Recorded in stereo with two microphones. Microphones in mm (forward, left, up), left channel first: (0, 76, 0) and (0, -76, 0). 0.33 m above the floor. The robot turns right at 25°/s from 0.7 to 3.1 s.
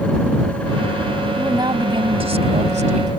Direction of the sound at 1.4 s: 155° right.